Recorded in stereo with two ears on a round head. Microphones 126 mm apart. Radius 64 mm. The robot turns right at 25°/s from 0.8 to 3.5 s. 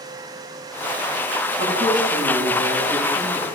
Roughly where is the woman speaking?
Right.